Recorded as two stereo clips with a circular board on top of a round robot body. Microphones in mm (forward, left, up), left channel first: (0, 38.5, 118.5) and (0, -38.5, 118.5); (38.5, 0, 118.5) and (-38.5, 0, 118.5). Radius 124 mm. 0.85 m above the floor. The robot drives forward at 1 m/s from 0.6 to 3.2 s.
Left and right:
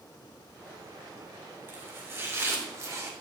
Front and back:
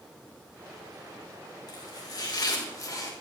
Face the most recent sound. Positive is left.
turn(degrees=-40)